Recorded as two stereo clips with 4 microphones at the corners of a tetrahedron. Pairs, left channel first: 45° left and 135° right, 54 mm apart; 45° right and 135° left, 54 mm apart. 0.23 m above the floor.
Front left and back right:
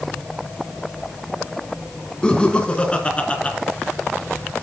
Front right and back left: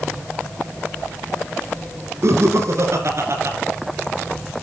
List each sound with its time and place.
2.2 s laughter: 115° left, 3 m; by 3.5 s 110° left, 3.5 m